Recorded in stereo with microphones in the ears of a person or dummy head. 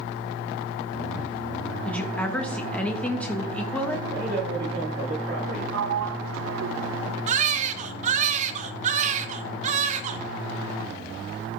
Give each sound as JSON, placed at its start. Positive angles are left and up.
{"t": 1.9, "sound": "a woman speaking", "side_deg": 15, "distance_m": 1.8}
{"t": 4.1, "sound": "a man speaking", "side_deg": -50, "distance_m": 8.0}
{"t": 5.7, "sound": "a sliding door", "side_deg": -75, "distance_m": 0.7}
{"t": 7.3, "sound": "a baby crying", "side_deg": -50, "distance_m": 1.2}